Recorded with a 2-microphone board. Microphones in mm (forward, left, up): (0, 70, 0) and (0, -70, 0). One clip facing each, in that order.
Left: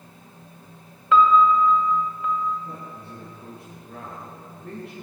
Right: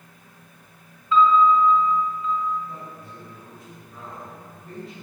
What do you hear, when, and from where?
1.1 s a piano: 75° left (ahead or behind), 1.9 m
2.6 s a man speaking: 70° left (ahead or behind), 9.5 m